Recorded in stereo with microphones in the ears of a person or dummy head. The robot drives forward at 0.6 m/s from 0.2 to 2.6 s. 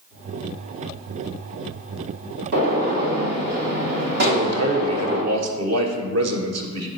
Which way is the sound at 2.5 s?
60° right (ahead or behind).